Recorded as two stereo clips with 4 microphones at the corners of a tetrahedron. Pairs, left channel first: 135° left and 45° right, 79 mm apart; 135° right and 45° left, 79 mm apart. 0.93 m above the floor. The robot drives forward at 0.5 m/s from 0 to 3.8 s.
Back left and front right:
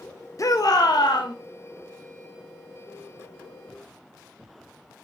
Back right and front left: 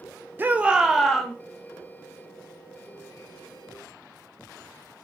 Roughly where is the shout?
Left.